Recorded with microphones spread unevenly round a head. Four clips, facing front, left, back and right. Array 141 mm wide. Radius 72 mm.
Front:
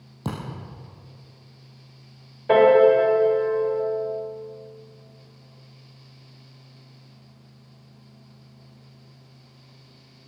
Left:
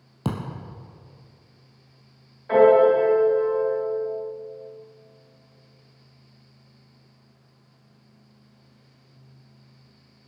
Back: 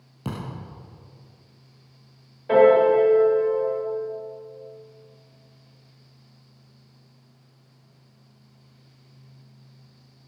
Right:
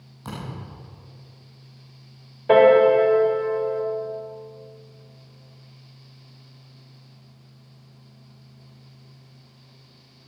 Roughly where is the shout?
I don't hear a shout.